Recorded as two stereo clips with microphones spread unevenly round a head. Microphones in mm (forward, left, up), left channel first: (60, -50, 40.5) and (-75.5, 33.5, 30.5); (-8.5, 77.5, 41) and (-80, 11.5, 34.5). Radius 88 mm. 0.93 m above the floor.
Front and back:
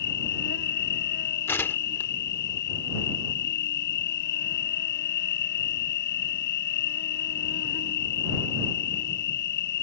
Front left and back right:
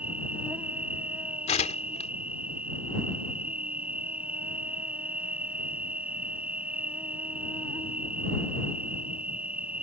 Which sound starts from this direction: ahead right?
An insect, at 0.0 s.